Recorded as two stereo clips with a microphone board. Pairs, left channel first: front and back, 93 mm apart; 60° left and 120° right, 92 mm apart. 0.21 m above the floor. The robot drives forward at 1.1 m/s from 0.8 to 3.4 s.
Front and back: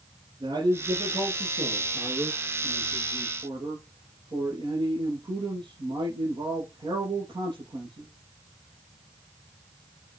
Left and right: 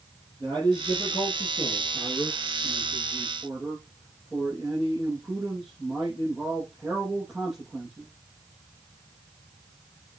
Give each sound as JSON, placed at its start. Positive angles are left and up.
{"t": 0.4, "sound": "a man speaking", "azimuth_deg": 140, "distance_m": 6.0}